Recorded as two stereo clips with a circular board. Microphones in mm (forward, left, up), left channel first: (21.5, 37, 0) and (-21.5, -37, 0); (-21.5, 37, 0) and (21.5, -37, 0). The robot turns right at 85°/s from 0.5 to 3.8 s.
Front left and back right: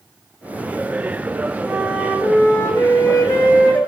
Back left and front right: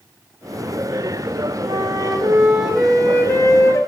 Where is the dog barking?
I don't hear a dog barking.